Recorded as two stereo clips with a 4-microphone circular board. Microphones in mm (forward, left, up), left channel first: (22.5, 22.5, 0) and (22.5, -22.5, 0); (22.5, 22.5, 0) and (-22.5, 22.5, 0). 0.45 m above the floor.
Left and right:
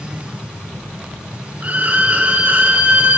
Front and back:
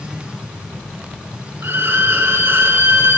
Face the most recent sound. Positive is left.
turn(degrees=-145)